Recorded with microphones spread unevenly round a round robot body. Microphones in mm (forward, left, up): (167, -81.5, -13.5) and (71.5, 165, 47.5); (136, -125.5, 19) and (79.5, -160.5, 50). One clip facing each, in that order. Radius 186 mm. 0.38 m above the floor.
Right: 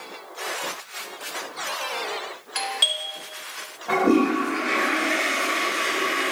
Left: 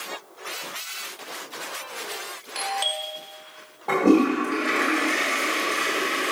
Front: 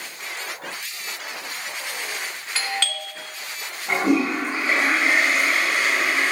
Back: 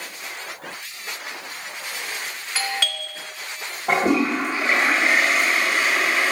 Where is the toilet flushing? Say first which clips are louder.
Left 1 dB, back 1 dB; 160° left, 2.5 m.